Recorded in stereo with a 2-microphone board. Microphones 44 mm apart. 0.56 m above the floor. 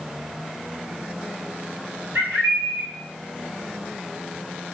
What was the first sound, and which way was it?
A bird, 55° right (ahead or behind).